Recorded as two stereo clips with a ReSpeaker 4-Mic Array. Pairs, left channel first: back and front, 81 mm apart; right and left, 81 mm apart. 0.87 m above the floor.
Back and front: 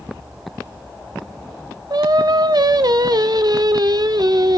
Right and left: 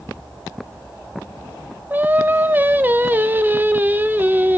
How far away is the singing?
About 0.6 m.